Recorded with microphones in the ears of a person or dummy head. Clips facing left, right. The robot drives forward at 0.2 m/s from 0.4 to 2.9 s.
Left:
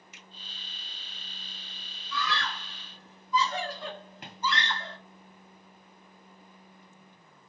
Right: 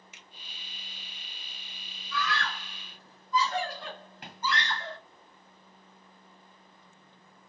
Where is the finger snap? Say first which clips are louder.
Left 2 dB; 75° right (ahead or behind), 1.5 m.